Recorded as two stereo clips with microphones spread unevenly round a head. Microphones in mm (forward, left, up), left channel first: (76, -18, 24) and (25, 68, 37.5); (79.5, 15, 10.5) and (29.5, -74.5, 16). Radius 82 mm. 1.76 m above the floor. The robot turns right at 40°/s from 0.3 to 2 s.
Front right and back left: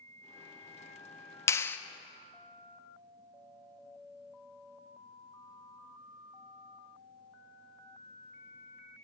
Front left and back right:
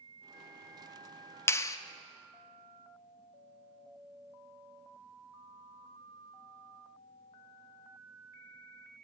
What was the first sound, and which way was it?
A clap, straight ahead.